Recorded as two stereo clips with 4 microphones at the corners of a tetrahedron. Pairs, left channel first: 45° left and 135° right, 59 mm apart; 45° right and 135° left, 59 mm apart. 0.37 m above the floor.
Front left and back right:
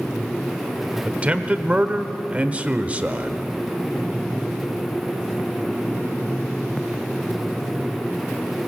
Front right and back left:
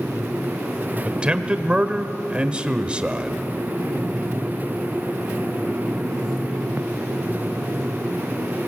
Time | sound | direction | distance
1.1 | a man speaking | 175° right | 1.0 m